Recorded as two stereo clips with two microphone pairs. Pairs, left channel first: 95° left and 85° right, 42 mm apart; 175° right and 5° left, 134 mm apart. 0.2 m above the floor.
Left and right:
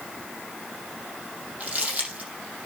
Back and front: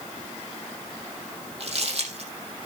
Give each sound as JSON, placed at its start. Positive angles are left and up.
{"t": 1.6, "sound": "crumpling", "azimuth_deg": -30, "distance_m": 5.5}